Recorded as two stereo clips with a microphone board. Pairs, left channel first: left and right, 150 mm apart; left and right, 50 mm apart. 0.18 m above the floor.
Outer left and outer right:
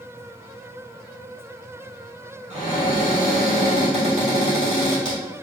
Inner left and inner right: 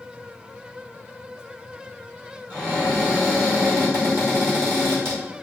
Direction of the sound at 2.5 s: 50° right (ahead or behind).